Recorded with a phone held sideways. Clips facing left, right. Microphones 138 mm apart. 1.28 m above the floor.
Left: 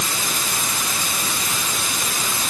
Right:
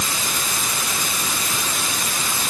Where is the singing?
I don't hear singing.